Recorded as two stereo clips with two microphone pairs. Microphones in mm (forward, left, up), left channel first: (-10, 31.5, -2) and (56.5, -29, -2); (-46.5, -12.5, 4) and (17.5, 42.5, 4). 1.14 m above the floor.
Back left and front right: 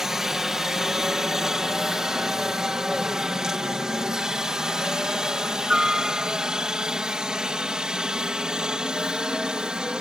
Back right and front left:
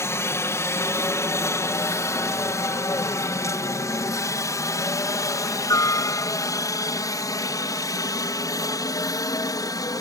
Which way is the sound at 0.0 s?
125° right.